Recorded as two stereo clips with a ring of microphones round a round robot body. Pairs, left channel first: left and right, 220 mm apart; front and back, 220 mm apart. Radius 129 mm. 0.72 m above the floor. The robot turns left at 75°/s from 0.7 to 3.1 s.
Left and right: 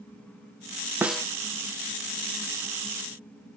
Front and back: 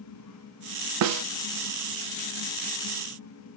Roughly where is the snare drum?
Behind.